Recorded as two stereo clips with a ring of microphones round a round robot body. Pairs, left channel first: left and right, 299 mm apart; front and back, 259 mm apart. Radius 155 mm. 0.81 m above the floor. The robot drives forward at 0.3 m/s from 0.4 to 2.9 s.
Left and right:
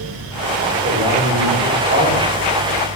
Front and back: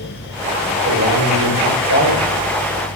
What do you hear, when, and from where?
0.8 s a man speaking: 155° right, 3 m